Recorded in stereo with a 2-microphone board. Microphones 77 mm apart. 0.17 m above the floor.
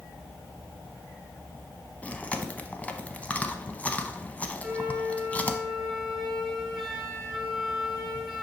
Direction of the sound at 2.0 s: 20° left (ahead or behind).